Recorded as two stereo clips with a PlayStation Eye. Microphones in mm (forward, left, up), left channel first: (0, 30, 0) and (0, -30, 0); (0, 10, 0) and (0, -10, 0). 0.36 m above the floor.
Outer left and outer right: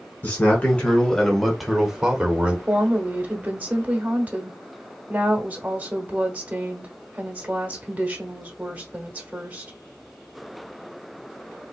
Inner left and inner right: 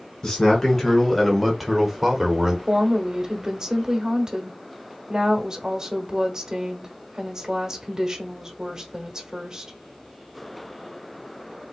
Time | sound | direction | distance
0.2 | a man speaking | 25° left (ahead or behind) | 1.3 m
2.7 | a woman speaking | 30° right (ahead or behind) | 1.2 m